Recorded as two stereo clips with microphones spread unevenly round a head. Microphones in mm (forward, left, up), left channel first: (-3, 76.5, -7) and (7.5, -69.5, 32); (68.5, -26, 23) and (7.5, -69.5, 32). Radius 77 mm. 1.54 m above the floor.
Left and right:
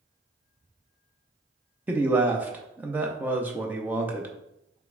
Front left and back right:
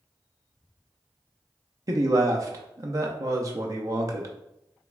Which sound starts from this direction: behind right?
A man speaking, at 1.9 s.